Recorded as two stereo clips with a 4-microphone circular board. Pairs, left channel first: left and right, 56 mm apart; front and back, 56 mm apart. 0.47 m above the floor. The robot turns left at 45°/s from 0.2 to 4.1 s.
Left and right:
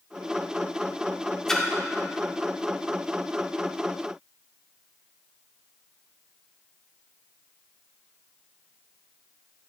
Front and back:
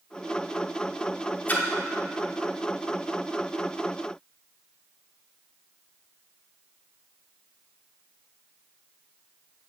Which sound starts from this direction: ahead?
A splash, at 1.5 s.